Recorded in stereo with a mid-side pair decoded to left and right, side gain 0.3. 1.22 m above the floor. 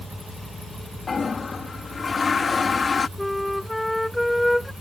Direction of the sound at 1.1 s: 55° left.